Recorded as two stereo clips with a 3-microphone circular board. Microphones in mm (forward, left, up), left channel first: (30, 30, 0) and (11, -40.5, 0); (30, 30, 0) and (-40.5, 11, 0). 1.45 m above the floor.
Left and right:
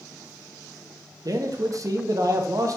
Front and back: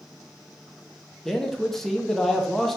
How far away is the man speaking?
About 0.6 m.